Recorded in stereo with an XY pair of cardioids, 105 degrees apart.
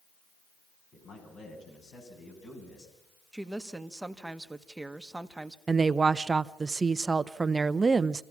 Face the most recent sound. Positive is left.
turn(degrees=-30)